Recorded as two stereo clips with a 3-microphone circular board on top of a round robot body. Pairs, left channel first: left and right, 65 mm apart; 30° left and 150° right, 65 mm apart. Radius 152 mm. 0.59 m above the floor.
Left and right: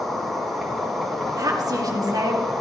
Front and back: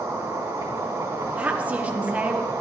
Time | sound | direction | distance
0.0 | an insect | 175° left | 1.8 m
1.4 | a woman speaking | 85° right | 1.4 m